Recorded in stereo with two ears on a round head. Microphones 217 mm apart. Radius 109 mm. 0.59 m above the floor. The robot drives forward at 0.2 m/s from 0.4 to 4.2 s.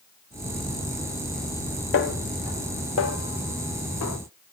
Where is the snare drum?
50° left (ahead or behind), 1.2 m; by 4.2 s 70° left (ahead or behind), 1.0 m.